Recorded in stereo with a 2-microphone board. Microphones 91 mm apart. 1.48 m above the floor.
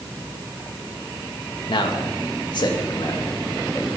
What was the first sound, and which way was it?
A man speaking, 65° left (ahead or behind).